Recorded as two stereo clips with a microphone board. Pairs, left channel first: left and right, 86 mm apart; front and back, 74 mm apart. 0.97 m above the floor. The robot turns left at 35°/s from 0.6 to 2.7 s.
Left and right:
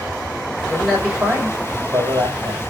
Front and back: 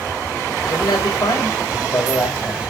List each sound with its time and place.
0.7 s a man speaking: 5° left, 4.5 m; by 2.6 s 65° right, 4.5 m